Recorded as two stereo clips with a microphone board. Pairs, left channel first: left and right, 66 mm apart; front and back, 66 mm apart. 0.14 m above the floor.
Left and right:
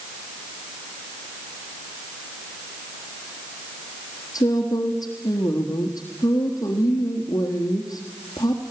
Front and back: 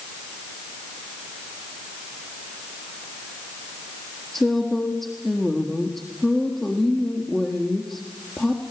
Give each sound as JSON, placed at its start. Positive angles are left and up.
{"t": 4.3, "sound": "a woman speaking", "azimuth_deg": 75, "distance_m": 3.5}